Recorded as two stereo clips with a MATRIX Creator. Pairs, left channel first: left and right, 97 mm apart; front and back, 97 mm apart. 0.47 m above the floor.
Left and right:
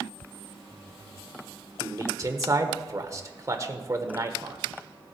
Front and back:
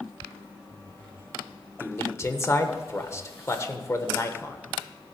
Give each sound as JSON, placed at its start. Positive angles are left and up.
{"t": 1.8, "sound": "a man speaking", "azimuth_deg": -45, "distance_m": 1.2}